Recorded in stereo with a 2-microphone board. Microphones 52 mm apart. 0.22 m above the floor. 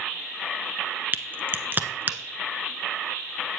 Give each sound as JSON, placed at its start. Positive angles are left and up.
{"t": 1.1, "sound": "a crack", "side_deg": -40, "distance_m": 0.9}